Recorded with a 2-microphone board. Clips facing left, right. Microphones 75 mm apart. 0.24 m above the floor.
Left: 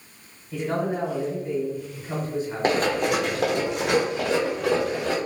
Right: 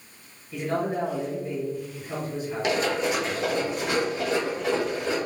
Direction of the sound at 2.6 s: 40° left (ahead or behind).